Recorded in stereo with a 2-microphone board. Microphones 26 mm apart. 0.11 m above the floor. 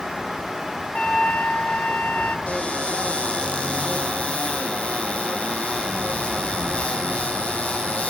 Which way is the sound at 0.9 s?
60° left (ahead or behind).